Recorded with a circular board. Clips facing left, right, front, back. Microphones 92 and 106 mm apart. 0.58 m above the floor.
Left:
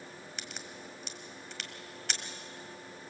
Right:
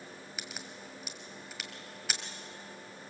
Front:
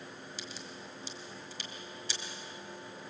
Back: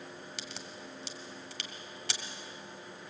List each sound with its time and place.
0.4 s a crack: 175° right, 1.7 m